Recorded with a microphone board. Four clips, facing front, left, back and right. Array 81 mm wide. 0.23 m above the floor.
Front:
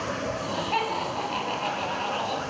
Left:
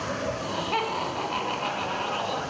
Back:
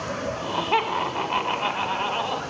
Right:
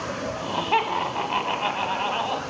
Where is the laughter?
130° right, 1.2 m.